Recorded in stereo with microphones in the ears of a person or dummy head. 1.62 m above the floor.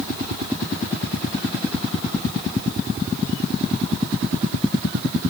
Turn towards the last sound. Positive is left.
No sound to turn to.